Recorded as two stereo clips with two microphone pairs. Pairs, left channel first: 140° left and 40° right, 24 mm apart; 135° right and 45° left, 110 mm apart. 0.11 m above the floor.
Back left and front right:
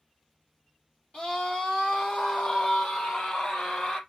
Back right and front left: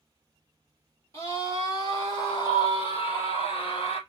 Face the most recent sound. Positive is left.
turn(degrees=-160)